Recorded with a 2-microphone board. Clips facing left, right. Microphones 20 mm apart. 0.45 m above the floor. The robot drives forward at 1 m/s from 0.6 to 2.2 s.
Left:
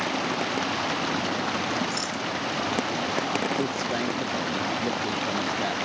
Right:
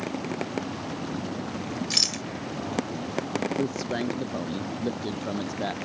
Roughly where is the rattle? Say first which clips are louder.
Right 5 dB; right.